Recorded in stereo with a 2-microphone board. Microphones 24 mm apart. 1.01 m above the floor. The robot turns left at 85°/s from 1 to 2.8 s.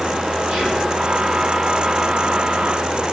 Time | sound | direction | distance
0.5 | whispering | 55° right (ahead or behind) | 1.3 m